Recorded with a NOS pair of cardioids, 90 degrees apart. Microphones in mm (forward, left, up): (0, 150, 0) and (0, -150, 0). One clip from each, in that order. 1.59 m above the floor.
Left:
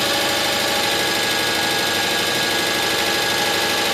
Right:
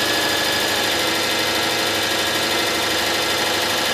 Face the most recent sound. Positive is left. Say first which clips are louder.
# even
turn(degrees=10)